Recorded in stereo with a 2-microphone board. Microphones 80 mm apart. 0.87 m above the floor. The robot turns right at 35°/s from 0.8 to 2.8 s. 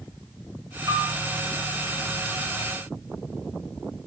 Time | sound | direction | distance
0.9 | a piano | 55° right (ahead or behind) | 4.5 m